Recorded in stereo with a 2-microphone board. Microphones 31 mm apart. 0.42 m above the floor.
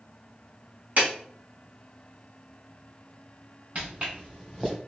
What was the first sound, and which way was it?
A clap, 55° right (ahead or behind).